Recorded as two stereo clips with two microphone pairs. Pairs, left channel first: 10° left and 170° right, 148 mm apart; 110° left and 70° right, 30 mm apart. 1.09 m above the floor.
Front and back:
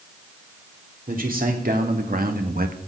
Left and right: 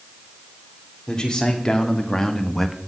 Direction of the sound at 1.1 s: 175° left.